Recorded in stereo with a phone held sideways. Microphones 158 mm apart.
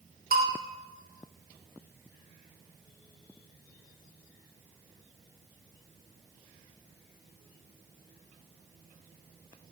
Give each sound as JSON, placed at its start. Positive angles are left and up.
{"t": 0.3, "sound": "a bell", "side_deg": -70, "distance_m": 0.6}